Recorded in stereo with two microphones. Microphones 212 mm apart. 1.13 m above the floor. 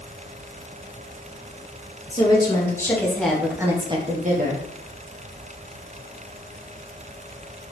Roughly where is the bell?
I don't hear a bell.